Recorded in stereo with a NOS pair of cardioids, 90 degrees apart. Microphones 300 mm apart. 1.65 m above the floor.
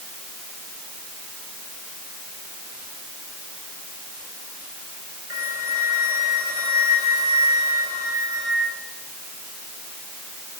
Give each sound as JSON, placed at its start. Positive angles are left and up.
{"t": 5.3, "sound": "a flute", "azimuth_deg": -10, "distance_m": 6.0}